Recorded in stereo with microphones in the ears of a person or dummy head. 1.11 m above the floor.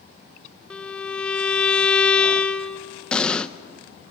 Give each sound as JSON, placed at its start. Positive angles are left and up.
{"t": 0.7, "sound": "a violin", "side_deg": 5, "distance_m": 0.8}
{"t": 3.1, "sound": "an explosion", "side_deg": 5, "distance_m": 0.7}